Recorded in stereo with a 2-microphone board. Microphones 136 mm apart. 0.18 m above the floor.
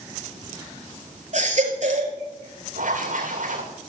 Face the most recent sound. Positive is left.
turn(degrees=-70)  # may be behind; listen again after turning